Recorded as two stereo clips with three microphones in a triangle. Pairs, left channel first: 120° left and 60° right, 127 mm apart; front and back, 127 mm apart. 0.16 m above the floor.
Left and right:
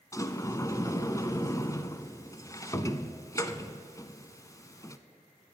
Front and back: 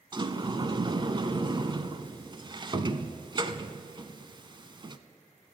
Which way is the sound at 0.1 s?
165° left.